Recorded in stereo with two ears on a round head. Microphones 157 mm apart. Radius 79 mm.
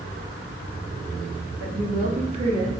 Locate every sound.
1.6 s a woman speaking: 55° right (ahead or behind), 0.8 m; by 2.7 s 25° right (ahead or behind), 0.9 m